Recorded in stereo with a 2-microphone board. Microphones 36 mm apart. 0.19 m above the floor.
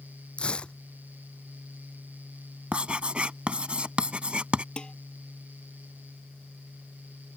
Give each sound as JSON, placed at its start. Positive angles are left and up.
{"t": 0.4, "sound": "tearing paper", "side_deg": 30}
{"t": 2.7, "sound": "writing", "side_deg": -30}
{"t": 4.8, "sound": "dishes clattering", "side_deg": 25}